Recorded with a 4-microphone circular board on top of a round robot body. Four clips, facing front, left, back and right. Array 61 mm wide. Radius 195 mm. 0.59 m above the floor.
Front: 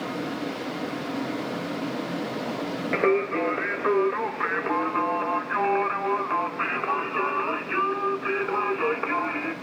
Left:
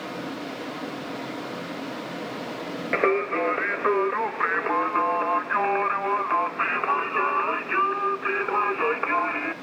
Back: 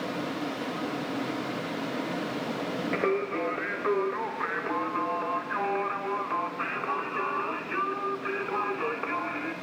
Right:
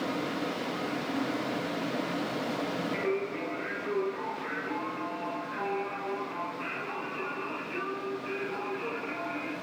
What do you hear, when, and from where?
2.9 s singing: 80° left, 0.9 m